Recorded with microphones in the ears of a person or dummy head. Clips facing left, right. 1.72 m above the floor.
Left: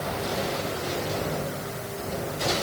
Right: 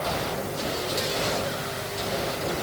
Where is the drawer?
No drawer in this recording.